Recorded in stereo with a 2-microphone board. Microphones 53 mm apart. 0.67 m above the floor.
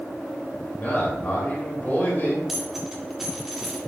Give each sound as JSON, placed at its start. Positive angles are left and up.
{"t": 0.8, "sound": "a man speaking", "side_deg": 35, "distance_m": 3.0}
{"t": 2.5, "sound": "a dropped coin", "side_deg": 0, "distance_m": 2.5}